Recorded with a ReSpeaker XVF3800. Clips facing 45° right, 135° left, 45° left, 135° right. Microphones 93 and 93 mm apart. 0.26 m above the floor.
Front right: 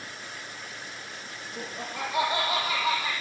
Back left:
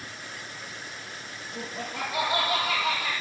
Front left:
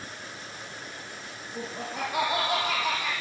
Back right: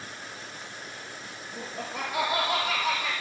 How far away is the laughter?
About 6.5 m.